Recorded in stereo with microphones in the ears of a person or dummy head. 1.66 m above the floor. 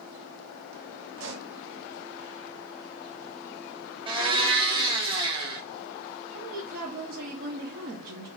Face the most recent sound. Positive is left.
turn(degrees=-55)  # may be behind; listen again after turning